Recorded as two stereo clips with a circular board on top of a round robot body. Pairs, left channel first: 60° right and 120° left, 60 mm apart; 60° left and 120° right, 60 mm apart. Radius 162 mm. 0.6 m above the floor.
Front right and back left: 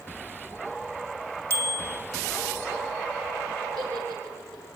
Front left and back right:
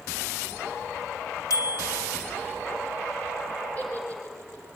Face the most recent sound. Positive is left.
turn(degrees=125)